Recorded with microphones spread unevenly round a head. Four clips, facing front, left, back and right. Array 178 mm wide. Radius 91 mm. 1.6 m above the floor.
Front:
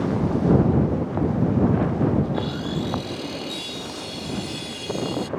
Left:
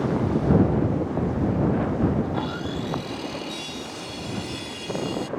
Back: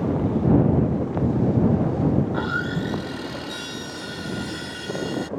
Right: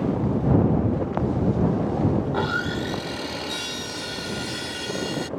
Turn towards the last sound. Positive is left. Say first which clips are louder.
# right 3 dB, back 1 dB
turn(degrees=-85)